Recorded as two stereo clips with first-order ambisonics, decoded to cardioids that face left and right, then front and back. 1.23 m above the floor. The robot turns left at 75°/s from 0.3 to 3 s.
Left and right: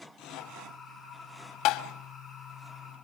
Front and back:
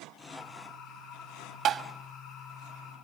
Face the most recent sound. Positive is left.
turn(degrees=20)